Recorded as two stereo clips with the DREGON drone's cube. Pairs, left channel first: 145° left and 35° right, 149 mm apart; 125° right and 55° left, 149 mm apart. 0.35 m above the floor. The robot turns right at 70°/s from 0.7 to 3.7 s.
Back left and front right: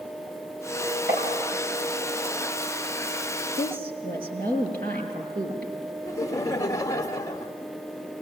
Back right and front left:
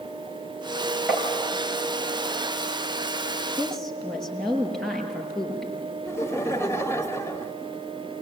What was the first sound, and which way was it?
Tapping, 140° left.